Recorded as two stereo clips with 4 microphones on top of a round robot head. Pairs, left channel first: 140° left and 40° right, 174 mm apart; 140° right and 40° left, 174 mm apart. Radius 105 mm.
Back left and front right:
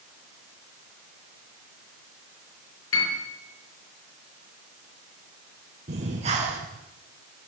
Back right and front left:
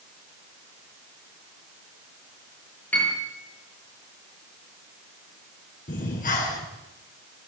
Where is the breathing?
95° right, 4 m.